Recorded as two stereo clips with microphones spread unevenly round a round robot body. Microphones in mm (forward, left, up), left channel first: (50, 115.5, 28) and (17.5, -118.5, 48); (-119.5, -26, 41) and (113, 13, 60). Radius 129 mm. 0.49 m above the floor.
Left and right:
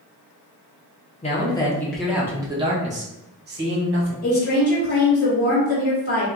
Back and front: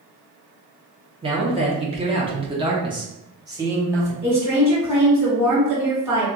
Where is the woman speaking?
90° left, 1.6 m.